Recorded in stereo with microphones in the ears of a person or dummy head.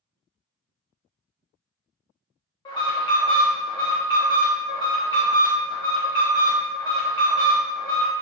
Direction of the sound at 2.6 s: 20° left (ahead or behind).